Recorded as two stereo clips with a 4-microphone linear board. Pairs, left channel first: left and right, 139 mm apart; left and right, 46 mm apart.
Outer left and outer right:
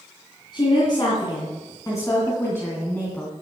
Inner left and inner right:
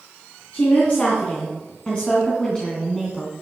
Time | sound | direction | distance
0.5 | a woman speaking | 35° left (ahead or behind) | 3 m